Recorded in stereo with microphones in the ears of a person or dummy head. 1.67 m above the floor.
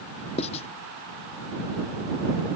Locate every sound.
0.4 s writing: 30° left (ahead or behind)